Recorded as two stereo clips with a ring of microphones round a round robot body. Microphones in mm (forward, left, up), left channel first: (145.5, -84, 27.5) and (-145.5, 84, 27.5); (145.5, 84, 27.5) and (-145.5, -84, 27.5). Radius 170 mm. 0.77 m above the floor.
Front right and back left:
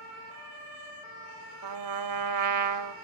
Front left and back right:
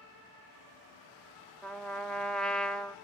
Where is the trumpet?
120° left, 1.2 m.